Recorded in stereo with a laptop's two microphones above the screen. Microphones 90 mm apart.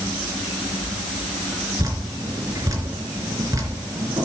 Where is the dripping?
40° right (ahead or behind), 3 m.